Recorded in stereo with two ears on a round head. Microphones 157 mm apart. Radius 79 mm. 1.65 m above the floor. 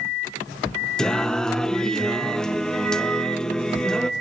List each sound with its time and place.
1.0 s singing: 5° left (ahead or behind), 0.9 m